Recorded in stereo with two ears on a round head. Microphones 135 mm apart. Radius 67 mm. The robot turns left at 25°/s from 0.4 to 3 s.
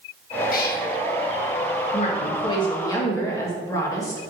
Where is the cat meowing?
60° left (ahead or behind), 1.0 m.